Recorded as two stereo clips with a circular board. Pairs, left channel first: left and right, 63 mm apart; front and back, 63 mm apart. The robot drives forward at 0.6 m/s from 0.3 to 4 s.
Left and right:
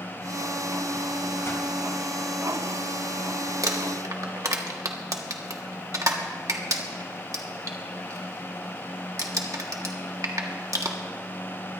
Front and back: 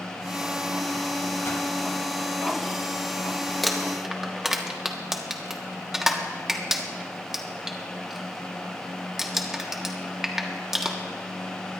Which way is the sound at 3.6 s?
85° right.